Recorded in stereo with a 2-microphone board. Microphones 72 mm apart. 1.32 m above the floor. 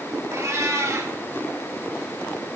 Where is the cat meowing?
45° right (ahead or behind), 1.3 m.